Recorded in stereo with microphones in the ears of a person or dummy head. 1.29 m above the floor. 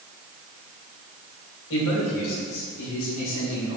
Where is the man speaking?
75° left (ahead or behind), 2.5 m; by 3.8 s 80° left, 4.5 m.